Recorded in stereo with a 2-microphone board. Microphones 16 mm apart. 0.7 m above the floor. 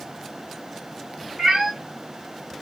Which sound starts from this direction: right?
A cat meowing, at 1.4 s.